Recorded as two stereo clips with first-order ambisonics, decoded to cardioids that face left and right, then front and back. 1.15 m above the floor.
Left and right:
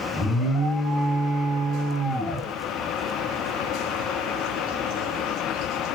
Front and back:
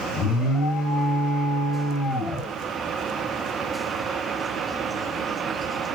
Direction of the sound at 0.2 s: 35° left.